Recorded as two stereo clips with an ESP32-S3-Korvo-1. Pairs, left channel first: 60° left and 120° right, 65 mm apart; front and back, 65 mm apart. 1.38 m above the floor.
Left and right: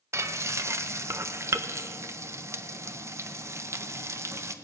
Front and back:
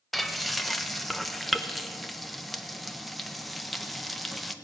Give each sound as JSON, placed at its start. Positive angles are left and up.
{"t": 0.1, "sound": "frying", "azimuth_deg": -90, "distance_m": 0.7}